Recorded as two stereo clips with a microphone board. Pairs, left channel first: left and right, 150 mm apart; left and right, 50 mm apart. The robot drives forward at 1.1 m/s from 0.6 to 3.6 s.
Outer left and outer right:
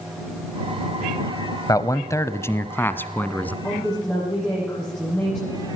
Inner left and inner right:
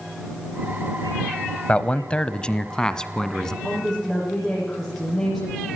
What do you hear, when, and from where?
1.7 s a man speaking: 25° left (ahead or behind), 1.1 m; by 3.5 s 10° left (ahead or behind), 2.5 m
3.6 s a woman speaking: 10° left (ahead or behind), 9.5 m